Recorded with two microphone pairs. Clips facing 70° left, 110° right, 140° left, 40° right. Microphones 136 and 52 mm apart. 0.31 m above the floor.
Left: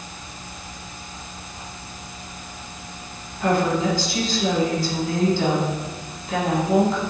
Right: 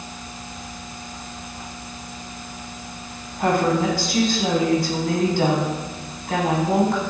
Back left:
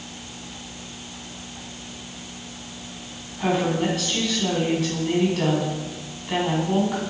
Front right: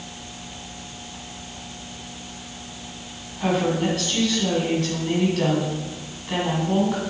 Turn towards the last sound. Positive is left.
turn(degrees=-130)